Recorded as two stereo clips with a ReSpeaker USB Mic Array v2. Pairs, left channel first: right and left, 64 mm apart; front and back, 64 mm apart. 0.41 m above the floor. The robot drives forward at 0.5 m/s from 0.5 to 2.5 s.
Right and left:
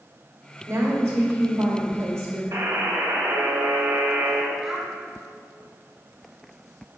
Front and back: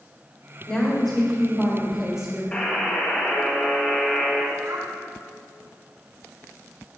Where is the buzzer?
65° left, 1.5 m.